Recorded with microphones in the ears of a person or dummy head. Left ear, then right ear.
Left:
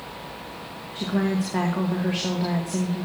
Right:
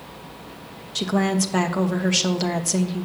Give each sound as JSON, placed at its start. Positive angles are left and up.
{"t": 0.9, "sound": "a woman speaking", "side_deg": -75, "distance_m": 1.3}